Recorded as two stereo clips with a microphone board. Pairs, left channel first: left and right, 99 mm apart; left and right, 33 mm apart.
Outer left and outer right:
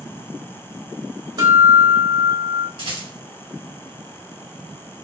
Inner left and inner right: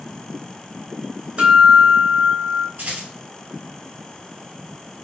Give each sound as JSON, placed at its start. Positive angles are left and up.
{"t": 1.4, "sound": "a guitar", "side_deg": -50, "distance_m": 2.5}
{"t": 2.8, "sound": "a rattle", "side_deg": -60, "distance_m": 2.5}